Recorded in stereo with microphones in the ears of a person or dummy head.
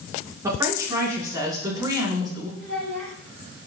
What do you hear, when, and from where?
0.4 s a woman speaking: 10° right (ahead or behind), 6.5 m; by 2.5 s 20° right (ahead or behind), 5 m
2.6 s a child speaking: 75° right (ahead or behind), 6 m